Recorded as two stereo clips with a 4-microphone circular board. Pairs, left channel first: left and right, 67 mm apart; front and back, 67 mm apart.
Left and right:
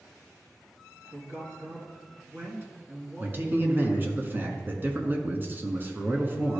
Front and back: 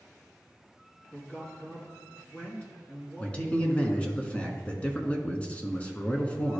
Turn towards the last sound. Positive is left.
turn(degrees=-60)